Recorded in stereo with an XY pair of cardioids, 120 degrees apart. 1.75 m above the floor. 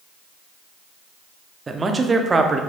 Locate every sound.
1.7 s a man speaking: 25° right, 0.6 m